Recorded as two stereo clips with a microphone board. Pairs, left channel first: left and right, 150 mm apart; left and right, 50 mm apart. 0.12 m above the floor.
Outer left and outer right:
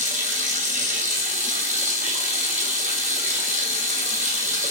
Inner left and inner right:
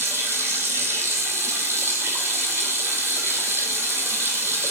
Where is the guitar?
No guitar in this recording.